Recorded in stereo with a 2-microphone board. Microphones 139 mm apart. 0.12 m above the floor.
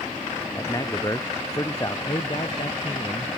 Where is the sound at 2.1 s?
35° left (ahead or behind).